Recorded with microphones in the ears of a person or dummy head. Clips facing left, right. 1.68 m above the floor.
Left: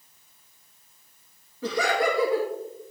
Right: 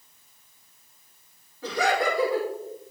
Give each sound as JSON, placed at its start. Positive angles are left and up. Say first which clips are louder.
{"t": 1.6, "sound": "laughter", "louder": "left 1 dB", "side_deg": 75, "distance_m": 2.0}